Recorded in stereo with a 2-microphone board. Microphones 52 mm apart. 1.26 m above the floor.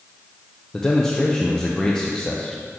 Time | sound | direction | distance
0.7 | a man speaking | 15° left (ahead or behind) | 0.5 m